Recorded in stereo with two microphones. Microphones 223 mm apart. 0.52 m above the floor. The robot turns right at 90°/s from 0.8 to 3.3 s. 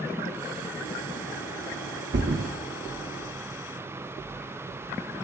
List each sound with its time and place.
2.1 s a thud: 55° right (ahead or behind), 1.2 m; by 2.5 s 70° right (ahead or behind), 1.2 m